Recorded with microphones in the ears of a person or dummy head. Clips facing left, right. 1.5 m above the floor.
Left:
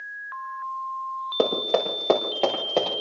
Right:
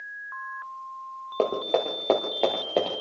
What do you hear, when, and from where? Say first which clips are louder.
1.4 s running footsteps: left 2 dB; 10° left (ahead or behind), 6.5 m; by 2.9 s 10° right (ahead or behind), 6.5 m